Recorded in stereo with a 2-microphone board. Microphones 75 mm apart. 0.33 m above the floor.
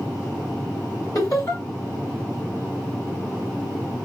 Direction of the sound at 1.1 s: 45° left (ahead or behind).